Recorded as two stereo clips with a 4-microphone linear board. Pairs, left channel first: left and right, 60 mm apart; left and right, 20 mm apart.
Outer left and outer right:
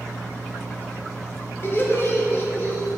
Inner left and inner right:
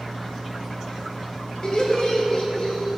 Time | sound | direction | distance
1.6 | laughter | 45° left (ahead or behind) | 1.6 m